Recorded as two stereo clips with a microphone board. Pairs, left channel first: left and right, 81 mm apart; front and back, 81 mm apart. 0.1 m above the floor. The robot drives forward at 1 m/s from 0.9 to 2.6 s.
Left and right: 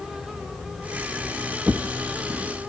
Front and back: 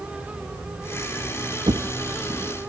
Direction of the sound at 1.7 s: 165° right.